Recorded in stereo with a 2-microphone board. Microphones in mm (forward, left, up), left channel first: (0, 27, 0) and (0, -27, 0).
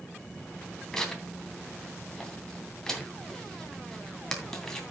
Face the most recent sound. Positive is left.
turn(degrees=10)  # may be behind; listen again after turning